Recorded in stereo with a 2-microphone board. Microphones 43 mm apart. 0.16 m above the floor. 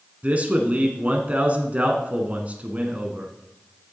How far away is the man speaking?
About 1.2 m.